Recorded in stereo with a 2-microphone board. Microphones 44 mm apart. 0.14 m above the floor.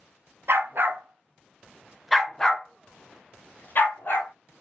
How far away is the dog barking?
About 1.0 m.